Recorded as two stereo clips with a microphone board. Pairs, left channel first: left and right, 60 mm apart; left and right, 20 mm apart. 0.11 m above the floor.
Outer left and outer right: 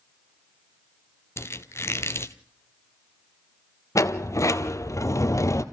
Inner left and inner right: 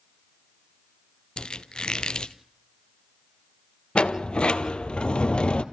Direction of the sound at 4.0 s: 55° left (ahead or behind).